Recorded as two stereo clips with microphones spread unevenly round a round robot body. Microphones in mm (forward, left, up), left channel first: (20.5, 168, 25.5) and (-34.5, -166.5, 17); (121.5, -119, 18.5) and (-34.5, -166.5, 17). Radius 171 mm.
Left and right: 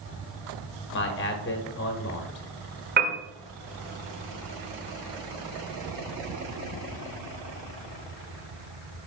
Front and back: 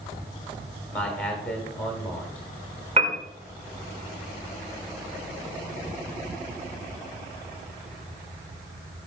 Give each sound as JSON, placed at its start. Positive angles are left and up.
{"t": 0.9, "sound": "a man speaking", "azimuth_deg": 95, "distance_m": 1.0}
{"t": 3.0, "sound": "a piano", "azimuth_deg": -145, "distance_m": 1.3}